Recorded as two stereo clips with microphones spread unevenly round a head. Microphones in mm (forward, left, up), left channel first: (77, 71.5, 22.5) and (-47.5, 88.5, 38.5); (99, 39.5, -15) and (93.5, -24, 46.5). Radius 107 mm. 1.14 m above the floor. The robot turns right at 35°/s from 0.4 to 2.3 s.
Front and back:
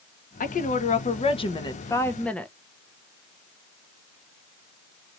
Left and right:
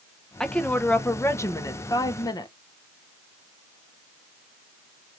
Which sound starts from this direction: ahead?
A woman speaking, at 0.4 s.